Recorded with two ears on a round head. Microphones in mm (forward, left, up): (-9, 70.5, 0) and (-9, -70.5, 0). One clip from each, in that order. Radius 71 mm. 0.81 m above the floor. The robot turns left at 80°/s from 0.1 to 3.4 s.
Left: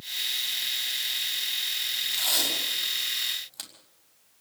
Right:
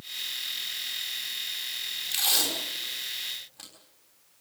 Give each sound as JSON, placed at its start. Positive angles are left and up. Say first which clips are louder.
{"t": 2.1, "sound": "tape being pulled", "louder": "right 1 dB", "side_deg": -15, "distance_m": 5.5}